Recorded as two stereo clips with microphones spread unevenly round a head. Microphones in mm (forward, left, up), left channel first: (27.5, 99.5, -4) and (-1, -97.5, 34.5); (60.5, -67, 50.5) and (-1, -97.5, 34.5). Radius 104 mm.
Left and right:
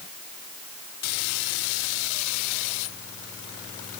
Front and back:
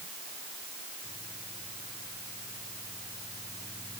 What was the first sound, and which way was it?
Only background noise.